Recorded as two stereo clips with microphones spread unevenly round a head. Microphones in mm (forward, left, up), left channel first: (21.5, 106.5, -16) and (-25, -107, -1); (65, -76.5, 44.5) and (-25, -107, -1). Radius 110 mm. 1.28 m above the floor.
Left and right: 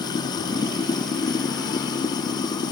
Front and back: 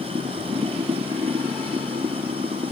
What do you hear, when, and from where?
0.0 s running water: 150° left